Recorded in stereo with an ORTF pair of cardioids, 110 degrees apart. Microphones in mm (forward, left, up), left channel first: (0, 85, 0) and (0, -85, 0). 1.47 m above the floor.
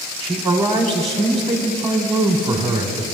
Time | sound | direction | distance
0.2 | a man speaking | 15° right | 0.9 m